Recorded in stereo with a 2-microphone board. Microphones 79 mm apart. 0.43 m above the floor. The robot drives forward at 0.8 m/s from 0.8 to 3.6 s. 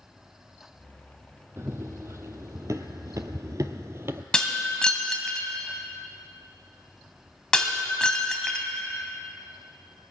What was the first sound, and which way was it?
Running footsteps, 35° right (ahead or behind).